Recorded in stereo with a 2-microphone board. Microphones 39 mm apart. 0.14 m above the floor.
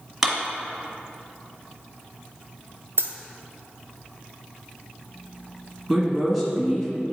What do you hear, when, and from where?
0.2 s a clap: 5° right (ahead or behind), 1.4 m
3.0 s a dropped coin: 70° right (ahead or behind), 0.8 m
5.9 s a woman speaking: 5° left (ahead or behind), 1.7 m